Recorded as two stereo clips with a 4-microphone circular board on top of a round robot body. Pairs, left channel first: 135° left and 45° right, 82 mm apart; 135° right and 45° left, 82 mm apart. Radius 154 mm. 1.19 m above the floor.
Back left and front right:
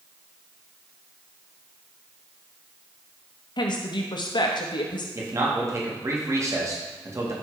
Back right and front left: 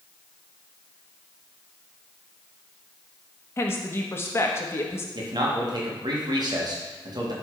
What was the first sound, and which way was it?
A woman speaking, 165° left.